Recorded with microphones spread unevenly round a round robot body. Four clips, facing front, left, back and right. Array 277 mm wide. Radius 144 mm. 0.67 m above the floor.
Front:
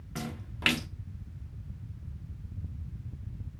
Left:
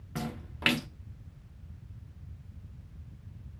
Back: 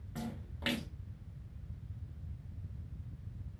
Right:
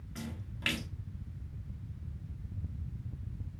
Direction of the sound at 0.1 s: 45° left.